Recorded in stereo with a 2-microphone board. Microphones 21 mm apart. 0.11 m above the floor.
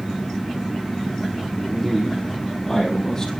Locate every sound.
1.6 s a man speaking: centre (ahead or behind), 3 m; by 3.3 s 35° left (ahead or behind), 4 m